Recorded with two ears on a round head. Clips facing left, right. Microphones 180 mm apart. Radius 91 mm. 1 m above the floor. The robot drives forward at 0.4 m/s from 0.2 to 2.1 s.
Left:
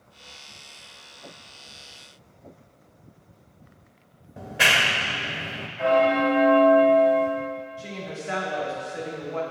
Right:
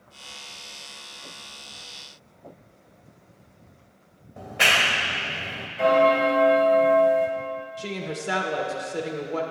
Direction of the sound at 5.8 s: 50° right (ahead or behind).